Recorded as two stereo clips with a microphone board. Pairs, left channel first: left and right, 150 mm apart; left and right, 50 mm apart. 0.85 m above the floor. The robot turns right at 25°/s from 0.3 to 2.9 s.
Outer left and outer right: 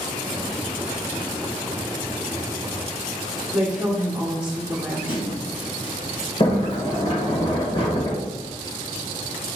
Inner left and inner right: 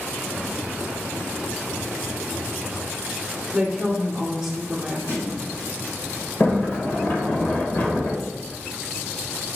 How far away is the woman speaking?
About 1.5 m.